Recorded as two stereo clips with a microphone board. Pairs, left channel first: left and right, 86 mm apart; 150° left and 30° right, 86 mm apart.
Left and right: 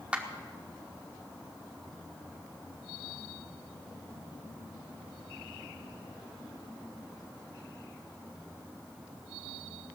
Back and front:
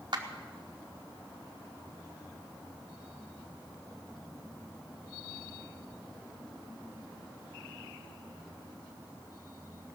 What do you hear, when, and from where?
0.1 s a clap: 15° right, 1.5 m